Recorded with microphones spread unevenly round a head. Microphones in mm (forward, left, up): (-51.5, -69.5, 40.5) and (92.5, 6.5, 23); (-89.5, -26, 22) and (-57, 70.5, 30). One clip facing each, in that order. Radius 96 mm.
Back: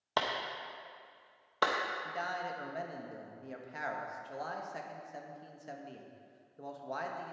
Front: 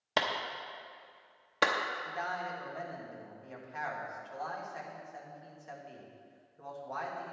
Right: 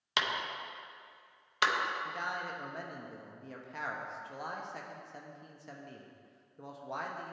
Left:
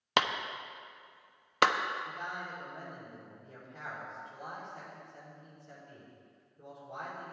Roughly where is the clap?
Left.